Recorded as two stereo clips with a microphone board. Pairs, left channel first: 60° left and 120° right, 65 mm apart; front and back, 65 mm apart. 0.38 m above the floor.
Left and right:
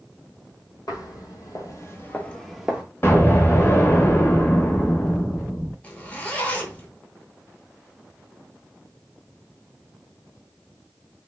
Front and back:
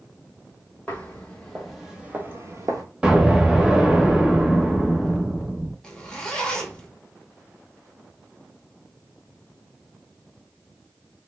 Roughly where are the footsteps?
Left.